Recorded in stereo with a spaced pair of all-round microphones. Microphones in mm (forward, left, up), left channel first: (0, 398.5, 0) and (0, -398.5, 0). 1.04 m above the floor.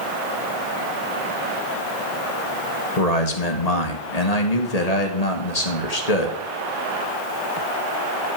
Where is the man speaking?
55° left (ahead or behind), 1.3 m.